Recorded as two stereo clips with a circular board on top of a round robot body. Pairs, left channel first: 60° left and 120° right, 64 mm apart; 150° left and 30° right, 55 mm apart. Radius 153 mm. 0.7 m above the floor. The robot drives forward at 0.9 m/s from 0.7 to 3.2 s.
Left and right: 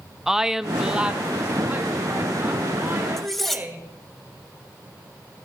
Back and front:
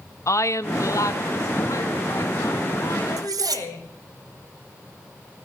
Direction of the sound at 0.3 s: 160° left.